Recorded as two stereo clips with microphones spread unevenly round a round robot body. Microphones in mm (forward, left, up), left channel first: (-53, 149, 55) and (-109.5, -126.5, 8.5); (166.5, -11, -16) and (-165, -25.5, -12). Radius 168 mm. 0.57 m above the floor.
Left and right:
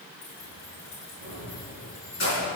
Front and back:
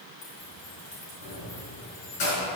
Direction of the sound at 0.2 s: 40° left.